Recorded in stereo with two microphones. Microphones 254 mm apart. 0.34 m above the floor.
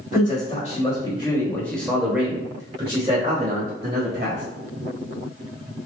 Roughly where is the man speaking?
Left.